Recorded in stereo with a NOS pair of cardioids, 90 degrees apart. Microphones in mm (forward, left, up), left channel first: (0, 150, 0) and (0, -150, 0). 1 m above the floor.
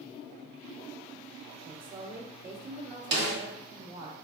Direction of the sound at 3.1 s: 35° right.